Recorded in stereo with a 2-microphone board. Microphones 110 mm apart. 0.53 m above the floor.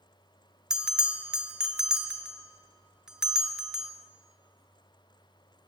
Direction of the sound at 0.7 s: 5° right (ahead or behind).